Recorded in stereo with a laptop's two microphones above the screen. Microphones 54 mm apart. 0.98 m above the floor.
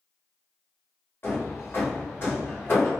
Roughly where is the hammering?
Left.